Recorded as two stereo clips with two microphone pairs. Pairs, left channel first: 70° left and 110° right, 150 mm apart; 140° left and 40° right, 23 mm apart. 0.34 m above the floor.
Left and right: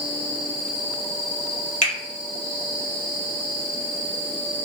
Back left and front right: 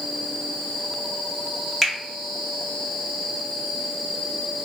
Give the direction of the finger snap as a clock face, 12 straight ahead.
10 o'clock.